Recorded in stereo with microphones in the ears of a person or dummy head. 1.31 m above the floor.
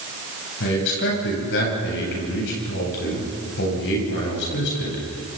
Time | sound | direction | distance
0.6 | a man speaking | 60° left (ahead or behind) | 9.5 m